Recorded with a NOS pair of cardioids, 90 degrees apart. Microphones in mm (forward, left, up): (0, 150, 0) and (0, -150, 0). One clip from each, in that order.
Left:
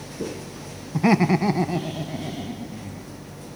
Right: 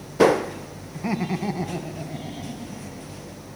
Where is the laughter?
60° left, 1.0 m; by 3.2 s 10° left, 3 m.